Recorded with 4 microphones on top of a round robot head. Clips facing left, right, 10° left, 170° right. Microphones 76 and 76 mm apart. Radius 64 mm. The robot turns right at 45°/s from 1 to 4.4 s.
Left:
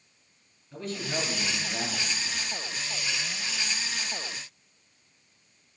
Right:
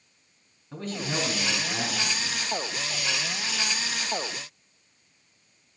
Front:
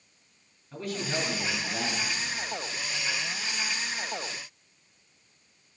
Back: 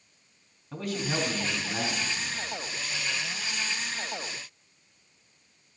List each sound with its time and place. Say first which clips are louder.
0.7 s a man speaking: right 2 dB, back 1 dB; 145° right, 4 m; by 2.4 s 80° right, 4 m